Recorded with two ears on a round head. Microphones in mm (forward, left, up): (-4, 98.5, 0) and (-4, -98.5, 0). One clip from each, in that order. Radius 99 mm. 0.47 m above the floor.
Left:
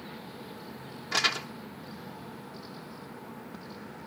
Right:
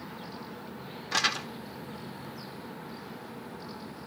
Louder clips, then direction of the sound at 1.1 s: Left 1 dB; 5° right (ahead or behind).